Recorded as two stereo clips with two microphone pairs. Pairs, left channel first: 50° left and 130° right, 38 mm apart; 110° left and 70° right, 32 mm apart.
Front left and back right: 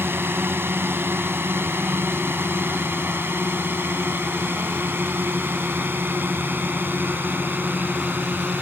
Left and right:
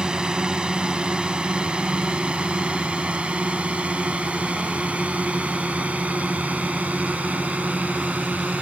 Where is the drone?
130° right; by 8.6 s 105° right.